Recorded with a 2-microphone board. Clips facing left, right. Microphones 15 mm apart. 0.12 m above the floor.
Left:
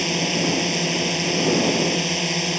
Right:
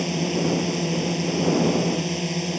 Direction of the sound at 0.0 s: 30° left (ahead or behind).